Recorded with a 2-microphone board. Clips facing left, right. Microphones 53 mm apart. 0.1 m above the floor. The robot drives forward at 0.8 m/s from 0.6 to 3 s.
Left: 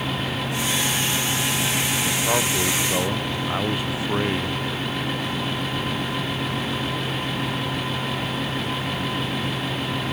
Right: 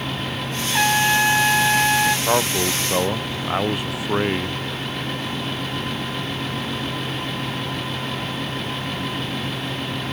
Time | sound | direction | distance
0.7 | a trumpet | 75° right (ahead or behind) | ?
2.3 | a man speaking | 20° right (ahead or behind) | ?